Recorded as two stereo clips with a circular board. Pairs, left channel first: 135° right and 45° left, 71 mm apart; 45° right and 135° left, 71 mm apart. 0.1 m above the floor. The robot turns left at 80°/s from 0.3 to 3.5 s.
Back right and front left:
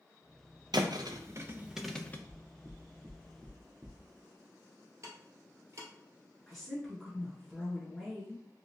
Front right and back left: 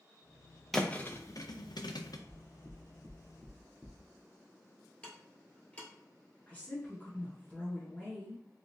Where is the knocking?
160° left, 0.9 m; by 4.0 s 65° left, 0.9 m.